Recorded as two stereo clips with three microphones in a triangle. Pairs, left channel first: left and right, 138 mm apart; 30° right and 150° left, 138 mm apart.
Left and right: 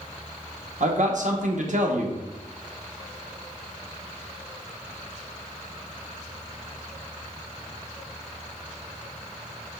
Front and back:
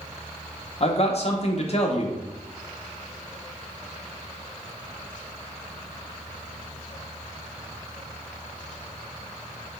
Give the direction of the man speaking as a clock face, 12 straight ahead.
2 o'clock.